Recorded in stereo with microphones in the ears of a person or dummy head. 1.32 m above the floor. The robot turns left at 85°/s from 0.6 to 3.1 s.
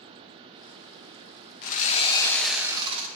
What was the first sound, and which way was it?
Sawing, 75° left.